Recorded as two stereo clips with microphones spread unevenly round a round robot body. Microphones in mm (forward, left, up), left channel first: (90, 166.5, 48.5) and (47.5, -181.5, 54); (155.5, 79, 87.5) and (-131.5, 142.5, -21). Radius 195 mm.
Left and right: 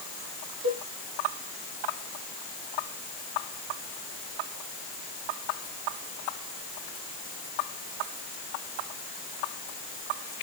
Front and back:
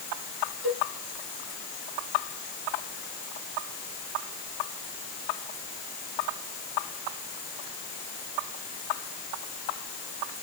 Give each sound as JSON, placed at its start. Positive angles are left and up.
{"t": 0.6, "sound": "a cowbell", "azimuth_deg": -20, "distance_m": 7.0}